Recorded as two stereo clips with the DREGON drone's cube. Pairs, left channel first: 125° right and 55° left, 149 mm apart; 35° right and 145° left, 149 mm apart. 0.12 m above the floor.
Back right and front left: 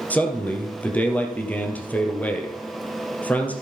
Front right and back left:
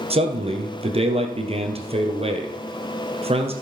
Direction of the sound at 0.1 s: 160° left.